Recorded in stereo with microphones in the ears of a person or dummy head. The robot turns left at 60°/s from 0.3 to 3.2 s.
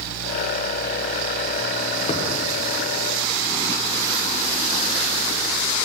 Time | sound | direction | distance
2.1 | a thud | 30° left (ahead or behind) | 1.2 m